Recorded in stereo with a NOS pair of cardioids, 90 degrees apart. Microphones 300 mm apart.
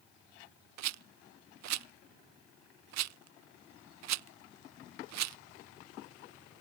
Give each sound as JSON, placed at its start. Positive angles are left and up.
{"t": 0.8, "sound": "a rattle", "azimuth_deg": -55}